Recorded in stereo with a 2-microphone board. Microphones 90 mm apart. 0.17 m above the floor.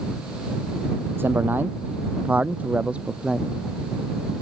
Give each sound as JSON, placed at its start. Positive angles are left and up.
{"t": 1.2, "sound": "a man speaking", "side_deg": -25}